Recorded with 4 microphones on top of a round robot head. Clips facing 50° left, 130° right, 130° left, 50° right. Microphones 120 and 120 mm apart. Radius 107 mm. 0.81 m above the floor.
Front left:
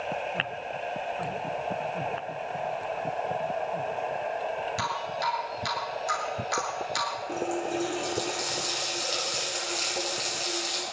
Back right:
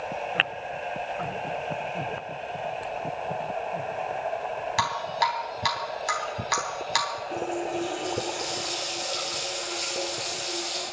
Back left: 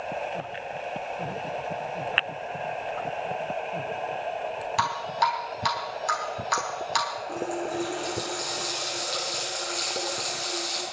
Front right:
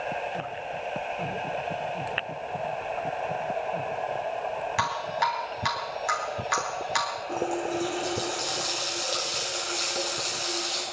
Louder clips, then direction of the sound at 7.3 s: Back right 1 dB, front right 4 dB; 40° left.